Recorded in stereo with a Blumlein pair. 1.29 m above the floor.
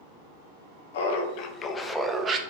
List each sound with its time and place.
0.9 s laughter: 55° left, 0.7 m; by 2.4 s 25° right, 0.6 m